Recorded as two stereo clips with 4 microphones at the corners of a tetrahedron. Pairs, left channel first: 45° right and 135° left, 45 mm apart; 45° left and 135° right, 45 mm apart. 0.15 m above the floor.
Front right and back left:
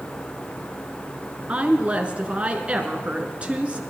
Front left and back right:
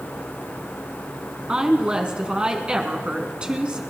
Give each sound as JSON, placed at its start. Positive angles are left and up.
{"t": 1.5, "sound": "a woman speaking", "azimuth_deg": 175, "distance_m": 1.5}